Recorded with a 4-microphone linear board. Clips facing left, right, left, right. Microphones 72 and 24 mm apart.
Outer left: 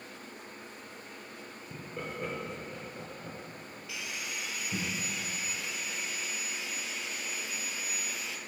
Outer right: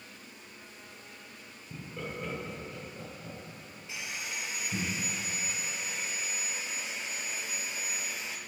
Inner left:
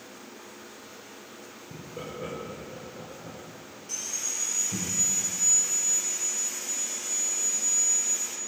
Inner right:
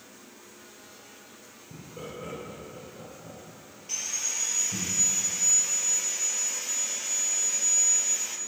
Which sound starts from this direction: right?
Sawing, at 3.9 s.